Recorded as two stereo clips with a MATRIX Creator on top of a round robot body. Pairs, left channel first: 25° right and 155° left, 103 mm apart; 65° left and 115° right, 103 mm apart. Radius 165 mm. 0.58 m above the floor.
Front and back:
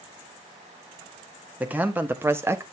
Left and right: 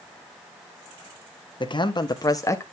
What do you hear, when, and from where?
1.6 s a man speaking: 85° left, 1.6 m; by 2.6 s 115° left, 1.3 m